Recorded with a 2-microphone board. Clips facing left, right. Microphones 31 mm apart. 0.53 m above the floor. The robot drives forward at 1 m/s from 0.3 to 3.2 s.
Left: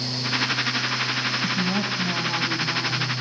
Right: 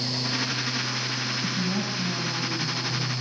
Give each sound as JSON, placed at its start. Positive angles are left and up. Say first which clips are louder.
{"t": 1.4, "sound": "a woman speaking", "louder": "left 4 dB", "side_deg": 50, "distance_m": 3.0}